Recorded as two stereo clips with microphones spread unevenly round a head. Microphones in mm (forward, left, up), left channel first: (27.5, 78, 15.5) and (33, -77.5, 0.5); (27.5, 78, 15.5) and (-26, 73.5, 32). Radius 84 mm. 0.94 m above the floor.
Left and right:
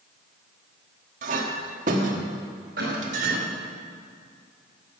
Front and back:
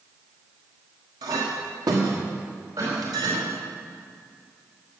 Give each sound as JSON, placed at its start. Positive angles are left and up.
{"t": 1.2, "sound": "a clink", "azimuth_deg": -135, "distance_m": 1.2}
{"t": 2.8, "sound": "a cough", "azimuth_deg": -125, "distance_m": 4.5}